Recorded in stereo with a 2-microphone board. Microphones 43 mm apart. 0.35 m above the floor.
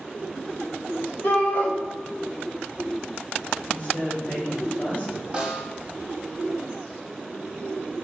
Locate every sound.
1.2 s a shout: 45° left (ahead or behind), 1.3 m
3.7 s a woman speaking: 40° left (ahead or behind), 1.5 m
5.3 s a snare drum: 20° right (ahead or behind), 0.9 m